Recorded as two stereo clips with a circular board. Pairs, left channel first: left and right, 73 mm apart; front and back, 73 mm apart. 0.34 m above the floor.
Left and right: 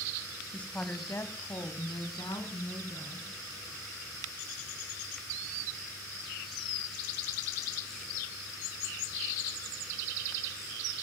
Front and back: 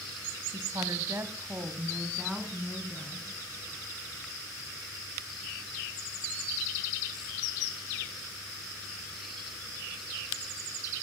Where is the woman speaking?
160° left, 2.5 m; by 3.3 s 85° left, 4.5 m.